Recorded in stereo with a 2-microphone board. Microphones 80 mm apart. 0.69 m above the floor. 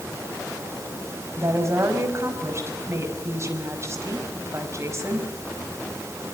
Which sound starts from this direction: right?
A woman speaking, at 1.4 s.